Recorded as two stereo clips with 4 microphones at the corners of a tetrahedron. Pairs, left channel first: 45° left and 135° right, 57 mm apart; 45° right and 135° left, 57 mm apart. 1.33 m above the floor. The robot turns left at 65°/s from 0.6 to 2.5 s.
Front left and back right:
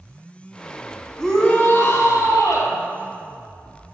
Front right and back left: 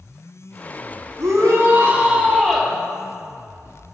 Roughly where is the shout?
Behind left.